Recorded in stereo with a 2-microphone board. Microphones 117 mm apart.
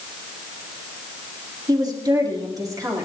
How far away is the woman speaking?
About 3.5 m.